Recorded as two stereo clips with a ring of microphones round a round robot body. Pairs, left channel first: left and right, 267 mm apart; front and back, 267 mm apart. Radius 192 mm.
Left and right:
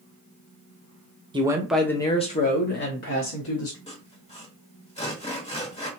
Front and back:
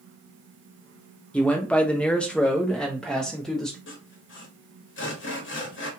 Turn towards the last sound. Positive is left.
turn(degrees=30)